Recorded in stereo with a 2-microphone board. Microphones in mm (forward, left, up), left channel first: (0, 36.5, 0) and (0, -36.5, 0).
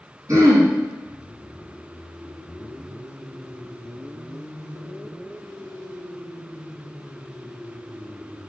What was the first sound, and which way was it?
Throat clearing, 50° right (ahead or behind).